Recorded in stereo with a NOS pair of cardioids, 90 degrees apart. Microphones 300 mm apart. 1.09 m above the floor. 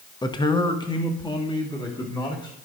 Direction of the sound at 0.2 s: 15° left.